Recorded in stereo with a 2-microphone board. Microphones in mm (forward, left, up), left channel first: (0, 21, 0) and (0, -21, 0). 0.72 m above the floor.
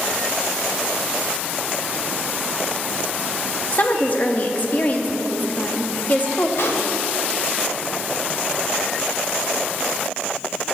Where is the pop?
70° left (ahead or behind), 0.8 m.